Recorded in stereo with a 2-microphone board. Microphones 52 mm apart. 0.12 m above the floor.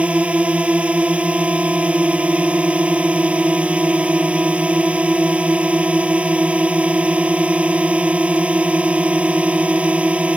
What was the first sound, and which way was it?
A drone, 25° right (ahead or behind).